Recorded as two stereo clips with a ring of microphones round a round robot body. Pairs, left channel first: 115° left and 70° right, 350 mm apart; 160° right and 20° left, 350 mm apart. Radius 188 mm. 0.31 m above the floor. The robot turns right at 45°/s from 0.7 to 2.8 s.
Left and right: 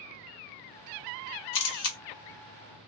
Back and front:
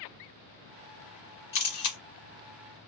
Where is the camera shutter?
145° left, 1.0 m; by 2.0 s 165° left, 1.0 m.